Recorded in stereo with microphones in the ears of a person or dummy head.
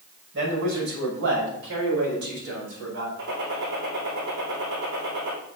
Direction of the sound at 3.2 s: 70° right (ahead or behind).